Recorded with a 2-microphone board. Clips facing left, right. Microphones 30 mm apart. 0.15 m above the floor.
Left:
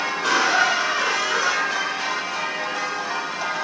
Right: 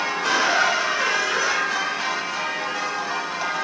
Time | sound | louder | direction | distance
0.2 | a squeak | left 1 dB | 75° left (ahead or behind) | 3 m